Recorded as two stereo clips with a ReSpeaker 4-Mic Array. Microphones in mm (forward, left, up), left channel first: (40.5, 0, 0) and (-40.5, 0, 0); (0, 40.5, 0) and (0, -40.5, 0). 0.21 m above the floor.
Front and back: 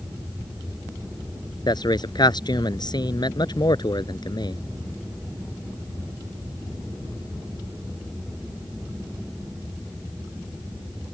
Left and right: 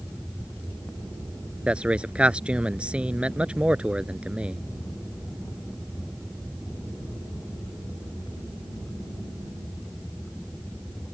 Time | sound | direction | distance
1.7 | a man speaking | 15° right | ?